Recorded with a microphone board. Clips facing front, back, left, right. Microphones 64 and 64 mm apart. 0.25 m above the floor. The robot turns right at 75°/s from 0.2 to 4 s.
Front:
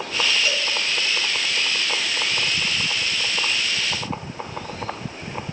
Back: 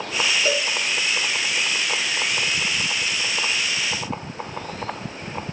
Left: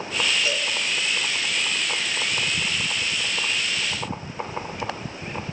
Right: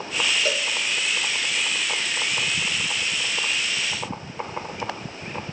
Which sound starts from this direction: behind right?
A cowbell, at 0.5 s.